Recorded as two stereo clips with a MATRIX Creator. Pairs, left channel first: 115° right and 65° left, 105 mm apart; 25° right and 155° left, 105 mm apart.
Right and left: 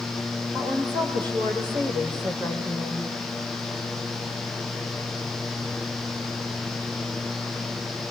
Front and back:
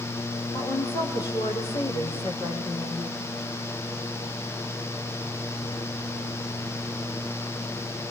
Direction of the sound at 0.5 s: 25° left.